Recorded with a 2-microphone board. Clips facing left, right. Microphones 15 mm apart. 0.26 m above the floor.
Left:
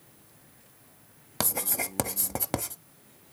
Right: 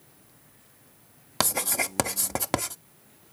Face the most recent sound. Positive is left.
turn(degrees=-20)  # may be behind; listen again after turning